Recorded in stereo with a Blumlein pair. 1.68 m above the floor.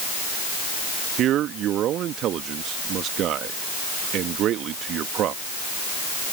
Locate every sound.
1.2 s a man speaking: 30° right